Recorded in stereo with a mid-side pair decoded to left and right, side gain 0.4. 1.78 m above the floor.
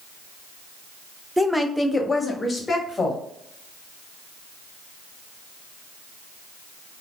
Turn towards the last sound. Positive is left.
turn(degrees=40)